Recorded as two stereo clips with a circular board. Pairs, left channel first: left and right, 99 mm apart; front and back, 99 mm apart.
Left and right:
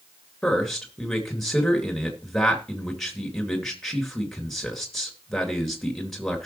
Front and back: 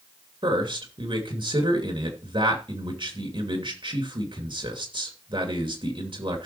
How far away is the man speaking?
About 2.5 m.